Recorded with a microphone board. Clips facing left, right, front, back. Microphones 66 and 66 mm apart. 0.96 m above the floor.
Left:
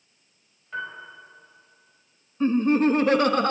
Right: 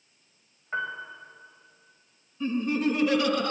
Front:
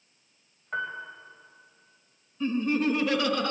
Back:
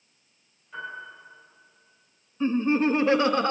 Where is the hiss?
No hiss in this recording.